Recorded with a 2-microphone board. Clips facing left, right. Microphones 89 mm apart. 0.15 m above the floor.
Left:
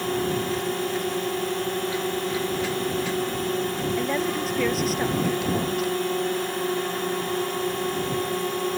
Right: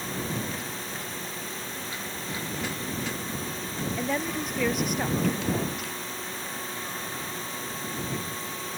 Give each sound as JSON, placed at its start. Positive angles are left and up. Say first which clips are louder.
{"t": 0.0, "sound": "a drone", "louder": "left 8 dB", "side_deg": 60}
{"t": 4.0, "sound": "a woman speaking", "louder": "left 2 dB", "side_deg": 0}